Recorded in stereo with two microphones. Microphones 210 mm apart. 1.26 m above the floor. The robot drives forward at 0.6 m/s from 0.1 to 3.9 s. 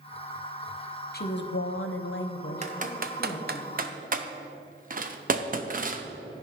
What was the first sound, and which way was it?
A woman speaking, 50° left (ahead or behind).